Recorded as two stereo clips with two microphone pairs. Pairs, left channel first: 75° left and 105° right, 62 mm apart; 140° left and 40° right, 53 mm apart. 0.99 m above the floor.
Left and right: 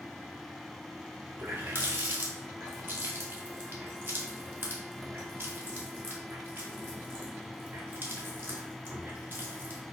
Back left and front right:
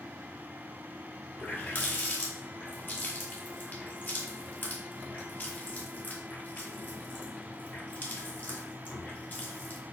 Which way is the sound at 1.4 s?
165° right.